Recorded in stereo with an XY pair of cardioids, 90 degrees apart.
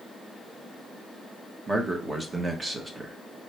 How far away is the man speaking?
About 1.3 m.